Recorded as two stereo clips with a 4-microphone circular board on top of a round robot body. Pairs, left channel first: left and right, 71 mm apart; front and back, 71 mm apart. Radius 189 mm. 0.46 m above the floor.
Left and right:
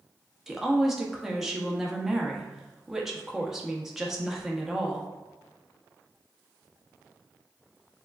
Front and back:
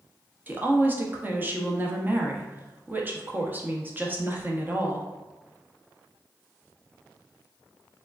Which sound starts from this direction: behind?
A woman speaking, at 0.5 s.